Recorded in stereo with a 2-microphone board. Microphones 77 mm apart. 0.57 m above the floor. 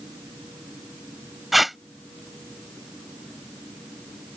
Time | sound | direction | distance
1.5 | tape being pulled | centre (ahead or behind) | ?